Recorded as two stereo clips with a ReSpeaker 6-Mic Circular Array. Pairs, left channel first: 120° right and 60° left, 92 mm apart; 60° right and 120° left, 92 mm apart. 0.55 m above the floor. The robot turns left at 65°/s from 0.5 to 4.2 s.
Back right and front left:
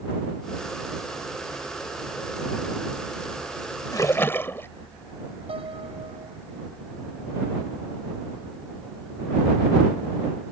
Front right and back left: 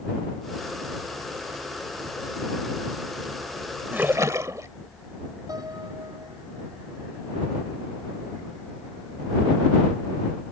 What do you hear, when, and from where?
3.9 s a splash: 165° right; by 4.7 s 175° left
5.5 s a piano: 70° left